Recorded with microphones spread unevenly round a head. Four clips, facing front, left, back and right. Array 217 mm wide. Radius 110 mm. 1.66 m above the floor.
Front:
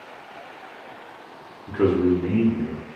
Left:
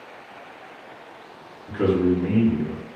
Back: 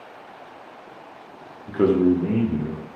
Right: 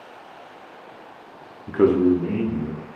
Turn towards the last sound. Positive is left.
turn(degrees=145)